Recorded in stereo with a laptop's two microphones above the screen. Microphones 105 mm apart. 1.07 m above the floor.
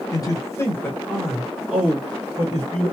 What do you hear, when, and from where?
0.1 s a man speaking: 35° left (ahead or behind), 1.1 m; by 2.9 s 35° right (ahead or behind), 1.3 m